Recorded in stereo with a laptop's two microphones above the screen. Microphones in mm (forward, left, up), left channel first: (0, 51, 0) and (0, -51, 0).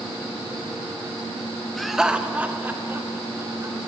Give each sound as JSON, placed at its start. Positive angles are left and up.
{"t": 1.8, "sound": "laughter", "side_deg": 0, "distance_m": 0.8}